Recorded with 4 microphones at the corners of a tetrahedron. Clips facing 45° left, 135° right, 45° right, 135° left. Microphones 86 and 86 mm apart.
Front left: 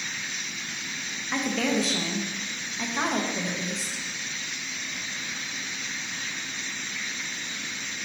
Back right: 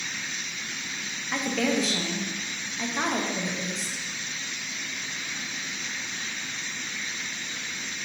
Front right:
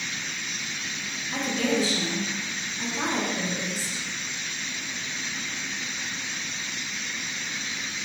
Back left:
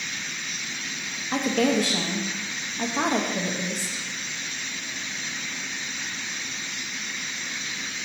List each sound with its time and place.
1.3 s a woman speaking: 135° left, 0.7 m